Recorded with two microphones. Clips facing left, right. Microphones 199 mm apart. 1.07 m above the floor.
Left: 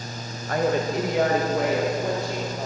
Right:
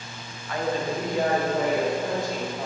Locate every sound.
0.5 s a woman speaking: 45° left (ahead or behind), 0.6 m; by 2.7 s 60° left (ahead or behind), 2 m